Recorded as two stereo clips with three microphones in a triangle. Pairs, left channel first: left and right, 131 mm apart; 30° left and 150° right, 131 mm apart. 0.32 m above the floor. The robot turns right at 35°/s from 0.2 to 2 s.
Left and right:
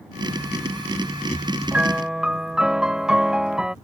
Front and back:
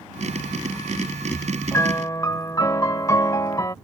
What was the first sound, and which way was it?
A piano, 20° right.